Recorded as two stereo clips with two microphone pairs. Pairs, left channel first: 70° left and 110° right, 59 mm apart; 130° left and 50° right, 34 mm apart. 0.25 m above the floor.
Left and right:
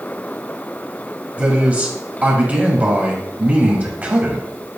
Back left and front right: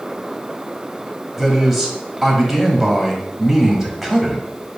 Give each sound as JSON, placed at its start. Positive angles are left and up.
{"t": 1.4, "sound": "a man speaking", "azimuth_deg": -130, "distance_m": 1.1}